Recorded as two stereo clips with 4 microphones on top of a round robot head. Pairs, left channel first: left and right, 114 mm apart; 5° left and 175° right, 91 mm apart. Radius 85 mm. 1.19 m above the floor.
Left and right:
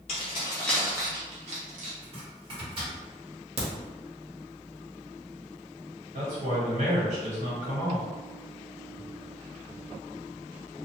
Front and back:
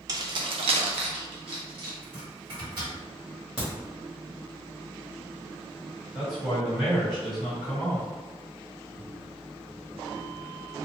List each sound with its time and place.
0.1 s keys jangling: 135° left, 0.7 m; by 1.9 s 120° right, 0.9 m
2.0 s chopping: 135° right, 1.4 m
3.6 s a crack: 75° right, 1.1 m
6.1 s a man speaking: 90° right, 1.5 m